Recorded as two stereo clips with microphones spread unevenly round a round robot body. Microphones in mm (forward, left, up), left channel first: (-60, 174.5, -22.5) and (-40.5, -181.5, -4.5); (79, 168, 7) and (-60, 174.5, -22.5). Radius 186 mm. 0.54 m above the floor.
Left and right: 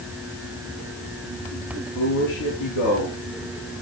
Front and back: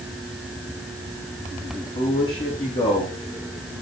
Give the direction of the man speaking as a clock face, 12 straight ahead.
10 o'clock.